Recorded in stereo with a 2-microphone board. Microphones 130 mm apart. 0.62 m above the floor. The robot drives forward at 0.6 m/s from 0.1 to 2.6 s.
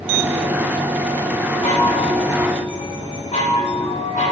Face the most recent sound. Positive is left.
turn(degrees=70)  # may be behind; listen again after turning